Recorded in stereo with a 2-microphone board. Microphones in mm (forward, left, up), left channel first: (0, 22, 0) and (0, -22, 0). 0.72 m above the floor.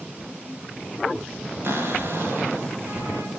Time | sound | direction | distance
1.6 | a cupboard door | 60° right (ahead or behind) | 2.5 m